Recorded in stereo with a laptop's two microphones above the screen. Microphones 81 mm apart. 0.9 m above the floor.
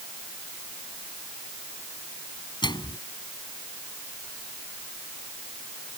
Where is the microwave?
70° left (ahead or behind).